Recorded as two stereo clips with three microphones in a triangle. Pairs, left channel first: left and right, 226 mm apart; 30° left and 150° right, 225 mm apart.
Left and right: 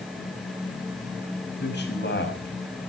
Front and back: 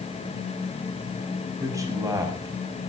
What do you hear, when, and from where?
1.6 s a man speaking: 135° left, 6.5 m